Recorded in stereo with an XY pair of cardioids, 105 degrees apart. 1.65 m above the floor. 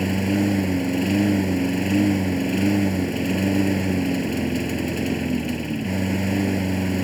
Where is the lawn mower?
Straight ahead.